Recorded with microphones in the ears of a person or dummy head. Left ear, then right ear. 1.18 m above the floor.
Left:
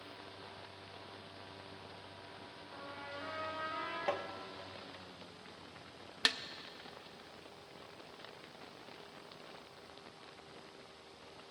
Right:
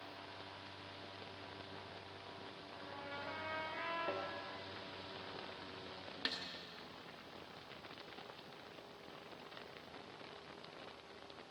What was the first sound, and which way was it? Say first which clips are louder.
A trumpet: left 2 dB; 35° left (ahead or behind).